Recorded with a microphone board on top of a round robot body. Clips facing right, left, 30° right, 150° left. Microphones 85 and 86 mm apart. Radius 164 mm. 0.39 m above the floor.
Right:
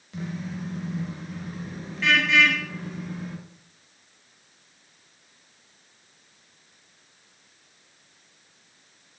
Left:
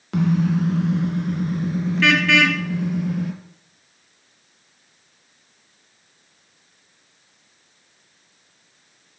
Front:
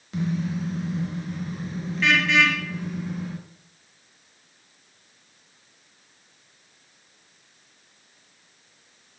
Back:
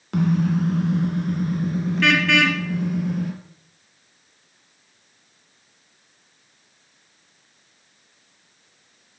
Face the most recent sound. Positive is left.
turn(degrees=115)